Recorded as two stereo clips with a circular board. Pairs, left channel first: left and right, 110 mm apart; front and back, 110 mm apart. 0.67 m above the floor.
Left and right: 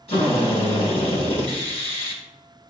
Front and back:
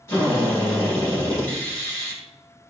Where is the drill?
65° left, 6 m.